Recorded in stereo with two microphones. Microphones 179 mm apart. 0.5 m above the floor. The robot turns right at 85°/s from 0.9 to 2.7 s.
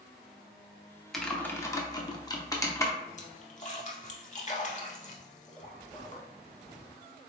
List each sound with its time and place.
1.1 s typing on a keyboard: centre (ahead or behind), 0.5 m; by 2.9 s 15° left (ahead or behind), 0.5 m
3.2 s a splash: 45° left (ahead or behind), 0.6 m